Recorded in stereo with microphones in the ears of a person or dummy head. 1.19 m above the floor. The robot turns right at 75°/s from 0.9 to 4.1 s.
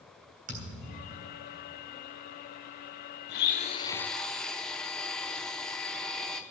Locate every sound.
0.5 s a thud: 135° right, 3 m; by 1.6 s 85° right, 3 m
3.3 s a blender: 115° left, 0.7 m; by 6.4 s 175° left, 0.7 m